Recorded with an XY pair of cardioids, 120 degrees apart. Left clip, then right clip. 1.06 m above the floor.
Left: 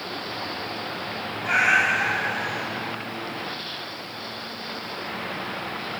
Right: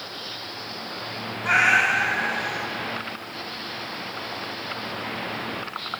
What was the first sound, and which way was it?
A cat meowing, 30° right.